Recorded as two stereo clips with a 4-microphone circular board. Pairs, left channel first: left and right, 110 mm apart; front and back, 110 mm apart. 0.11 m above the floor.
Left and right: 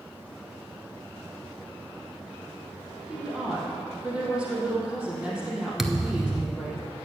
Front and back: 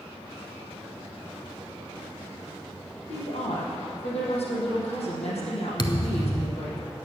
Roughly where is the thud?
Ahead.